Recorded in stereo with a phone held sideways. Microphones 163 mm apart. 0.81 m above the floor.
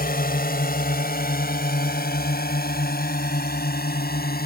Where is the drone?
70° left (ahead or behind); by 4.5 s 75° left (ahead or behind).